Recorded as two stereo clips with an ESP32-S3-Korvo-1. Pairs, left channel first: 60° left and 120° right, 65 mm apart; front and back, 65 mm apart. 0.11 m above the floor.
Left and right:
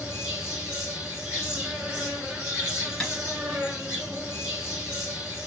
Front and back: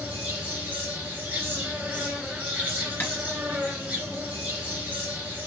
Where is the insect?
175° right, 2.5 m.